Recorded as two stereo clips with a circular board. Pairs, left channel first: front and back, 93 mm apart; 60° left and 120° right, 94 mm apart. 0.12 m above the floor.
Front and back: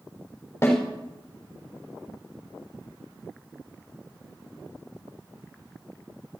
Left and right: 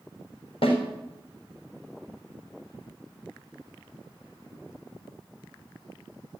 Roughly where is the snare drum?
Ahead left.